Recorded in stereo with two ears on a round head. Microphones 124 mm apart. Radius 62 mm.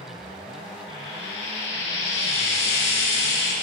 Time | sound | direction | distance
0.9 | frying | 45° left (ahead or behind) | 9.5 m